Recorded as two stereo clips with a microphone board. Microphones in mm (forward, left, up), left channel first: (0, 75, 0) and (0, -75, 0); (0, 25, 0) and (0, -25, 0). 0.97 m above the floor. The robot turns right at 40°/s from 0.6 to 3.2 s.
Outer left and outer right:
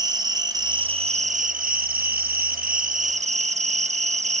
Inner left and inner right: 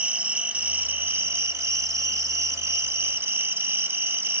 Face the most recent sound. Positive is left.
turn(degrees=-50)